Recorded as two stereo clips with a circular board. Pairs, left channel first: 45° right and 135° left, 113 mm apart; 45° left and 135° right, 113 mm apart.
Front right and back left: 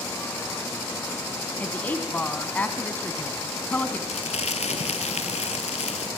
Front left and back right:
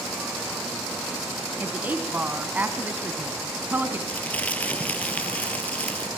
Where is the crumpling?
30° right, 0.7 m.